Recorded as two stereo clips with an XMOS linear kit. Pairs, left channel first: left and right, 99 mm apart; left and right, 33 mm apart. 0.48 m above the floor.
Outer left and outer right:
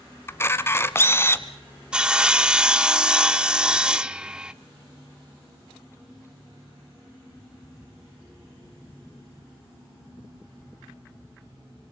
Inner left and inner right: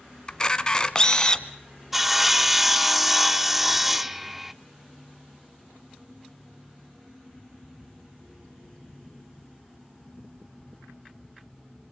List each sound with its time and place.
0.3 s a camera shutter: 25° left (ahead or behind), 1.1 m
1.9 s sawing: 10° right (ahead or behind), 0.5 m